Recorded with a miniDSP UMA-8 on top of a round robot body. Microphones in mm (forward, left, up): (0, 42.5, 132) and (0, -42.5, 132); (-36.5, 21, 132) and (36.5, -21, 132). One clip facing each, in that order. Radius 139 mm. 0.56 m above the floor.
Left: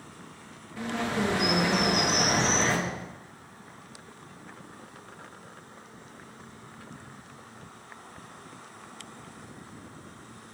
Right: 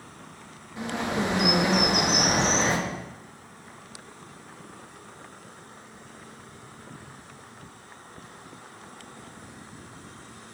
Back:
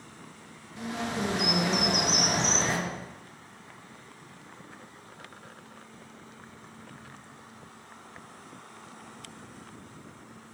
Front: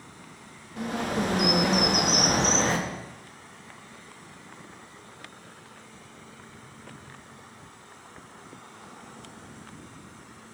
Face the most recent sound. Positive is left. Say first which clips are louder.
# right 1 dB, front 4 dB
turn(degrees=-25)